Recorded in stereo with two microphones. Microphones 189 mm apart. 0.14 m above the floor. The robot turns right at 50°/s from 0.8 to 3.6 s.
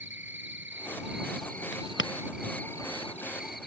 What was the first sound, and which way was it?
An insect, 85° right.